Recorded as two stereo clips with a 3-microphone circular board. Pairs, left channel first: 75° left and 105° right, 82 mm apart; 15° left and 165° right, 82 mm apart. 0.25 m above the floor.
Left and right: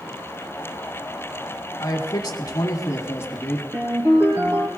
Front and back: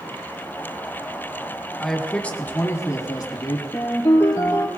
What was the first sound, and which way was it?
A man speaking, 100° left.